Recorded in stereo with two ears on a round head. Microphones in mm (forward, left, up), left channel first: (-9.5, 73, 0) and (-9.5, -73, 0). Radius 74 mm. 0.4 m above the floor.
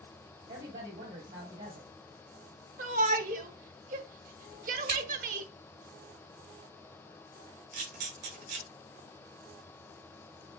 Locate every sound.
0.5 s a woman speaking: 45° right (ahead or behind), 1.9 m
2.8 s a shout: 55° right (ahead or behind), 1.3 m
4.9 s scissors: 70° right (ahead or behind), 3 m
7.7 s a camera shutter: 70° right (ahead or behind), 4 m